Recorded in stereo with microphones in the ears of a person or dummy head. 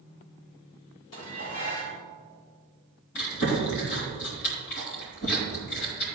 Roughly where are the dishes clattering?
Left.